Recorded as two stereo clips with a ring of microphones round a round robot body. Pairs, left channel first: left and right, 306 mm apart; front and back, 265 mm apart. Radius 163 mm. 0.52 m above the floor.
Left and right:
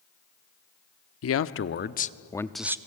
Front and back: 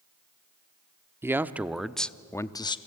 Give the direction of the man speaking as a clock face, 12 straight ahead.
9 o'clock.